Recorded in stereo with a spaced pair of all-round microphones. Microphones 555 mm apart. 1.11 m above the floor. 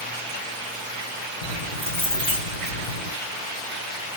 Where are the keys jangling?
70° left (ahead or behind), 6 m.